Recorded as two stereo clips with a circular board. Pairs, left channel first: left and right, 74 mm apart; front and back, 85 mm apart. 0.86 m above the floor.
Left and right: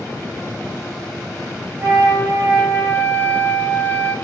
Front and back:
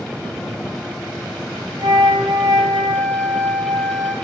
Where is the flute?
145° right, 2.5 m.